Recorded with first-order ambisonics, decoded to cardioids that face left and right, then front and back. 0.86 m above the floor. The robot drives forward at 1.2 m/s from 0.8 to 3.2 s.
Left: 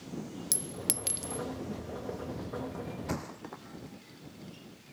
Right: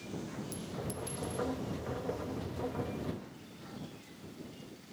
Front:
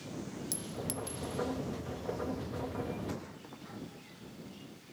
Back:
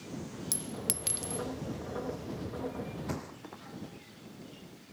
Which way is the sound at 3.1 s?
105° left.